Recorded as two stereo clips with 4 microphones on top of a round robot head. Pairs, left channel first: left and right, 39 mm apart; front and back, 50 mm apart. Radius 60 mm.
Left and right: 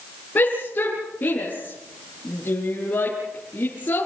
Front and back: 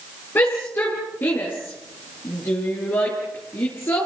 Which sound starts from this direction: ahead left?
A shout, at 0.3 s.